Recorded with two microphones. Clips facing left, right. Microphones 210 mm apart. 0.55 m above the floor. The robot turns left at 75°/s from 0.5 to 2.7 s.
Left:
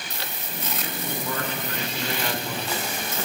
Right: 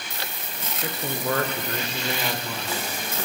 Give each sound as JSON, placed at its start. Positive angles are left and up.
{"t": 0.8, "sound": "a man speaking", "azimuth_deg": -65, "distance_m": 1.4}